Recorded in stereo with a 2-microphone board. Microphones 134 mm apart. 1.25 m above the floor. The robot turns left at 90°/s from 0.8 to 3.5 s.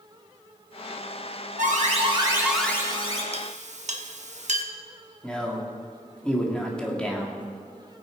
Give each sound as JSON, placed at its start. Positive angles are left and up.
{"t": 1.6, "sound": "an alarm", "azimuth_deg": -90, "distance_m": 2.5}
{"t": 3.3, "sound": "a clink", "side_deg": -50, "distance_m": 1.1}
{"t": 5.2, "sound": "a man speaking", "side_deg": 5, "distance_m": 2.0}